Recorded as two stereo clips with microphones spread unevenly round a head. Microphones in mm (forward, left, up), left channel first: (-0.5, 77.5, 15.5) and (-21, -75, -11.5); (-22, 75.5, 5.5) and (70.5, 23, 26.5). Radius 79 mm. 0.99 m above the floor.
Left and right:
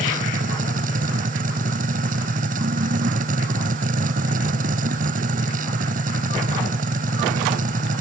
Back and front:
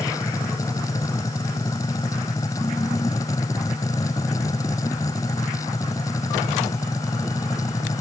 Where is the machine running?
135° right.